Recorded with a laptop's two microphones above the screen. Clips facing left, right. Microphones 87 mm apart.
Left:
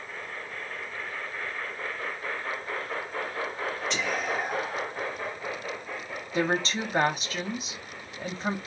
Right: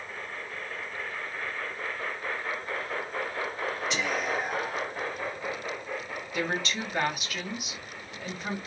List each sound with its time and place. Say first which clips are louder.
3.9 s whispering: even; 5° right (ahead or behind), 0.9 m
6.3 s a woman speaking: left 4 dB; 30° left (ahead or behind), 0.9 m